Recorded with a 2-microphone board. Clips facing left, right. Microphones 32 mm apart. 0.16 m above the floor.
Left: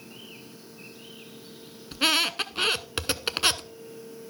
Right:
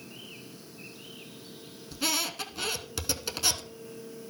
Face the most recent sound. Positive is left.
turn(degrees=45)  # may be behind; listen again after turning